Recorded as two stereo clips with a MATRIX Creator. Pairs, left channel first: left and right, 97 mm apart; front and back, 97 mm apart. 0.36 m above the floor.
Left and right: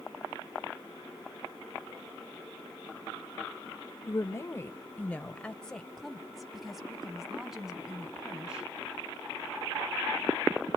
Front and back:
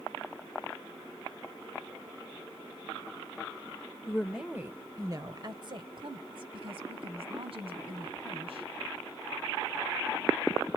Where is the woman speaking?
80° left, 0.9 m; by 8.7 s 170° right, 3.5 m.